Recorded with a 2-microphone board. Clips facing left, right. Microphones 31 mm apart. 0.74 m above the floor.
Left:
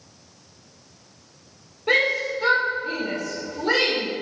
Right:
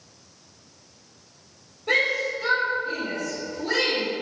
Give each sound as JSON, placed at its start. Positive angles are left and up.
{"t": 1.9, "sound": "a shout", "side_deg": 35, "distance_m": 3.0}